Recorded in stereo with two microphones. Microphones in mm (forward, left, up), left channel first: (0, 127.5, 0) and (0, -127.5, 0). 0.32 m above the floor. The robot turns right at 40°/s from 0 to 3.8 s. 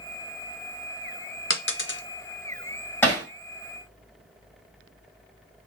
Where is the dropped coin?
55° left (ahead or behind), 0.5 m; by 2.0 s 50° left (ahead or behind), 0.5 m.